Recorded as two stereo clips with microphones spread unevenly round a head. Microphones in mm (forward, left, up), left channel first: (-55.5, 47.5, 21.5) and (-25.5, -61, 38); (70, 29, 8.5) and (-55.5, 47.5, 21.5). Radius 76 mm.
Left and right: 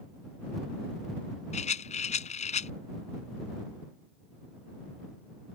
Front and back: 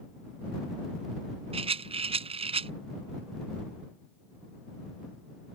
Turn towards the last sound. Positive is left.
turn(degrees=130)